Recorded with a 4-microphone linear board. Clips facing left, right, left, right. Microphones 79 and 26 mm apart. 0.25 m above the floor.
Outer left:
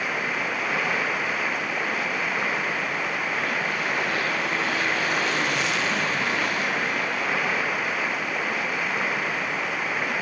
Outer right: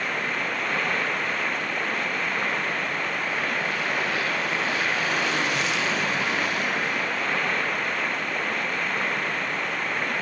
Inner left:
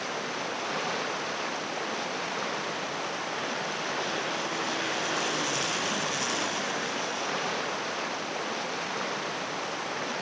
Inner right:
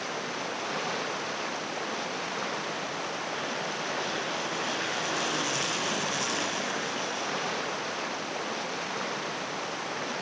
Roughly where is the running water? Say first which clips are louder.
Outer left 1 dB, inner left 1 dB; centre.